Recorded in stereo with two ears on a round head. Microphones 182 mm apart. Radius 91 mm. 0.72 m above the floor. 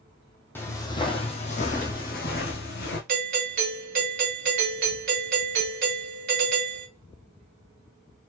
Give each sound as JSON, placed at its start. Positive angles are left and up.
{"t": 0.6, "sound": "footsteps", "side_deg": 10, "distance_m": 1.0}
{"t": 3.1, "sound": "a doorbell", "side_deg": -45, "distance_m": 1.9}